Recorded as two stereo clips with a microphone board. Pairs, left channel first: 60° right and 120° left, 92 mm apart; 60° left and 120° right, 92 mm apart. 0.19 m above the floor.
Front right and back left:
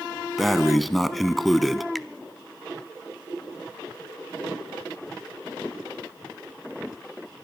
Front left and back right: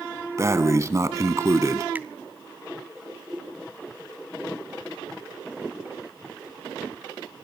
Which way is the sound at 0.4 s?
150° right.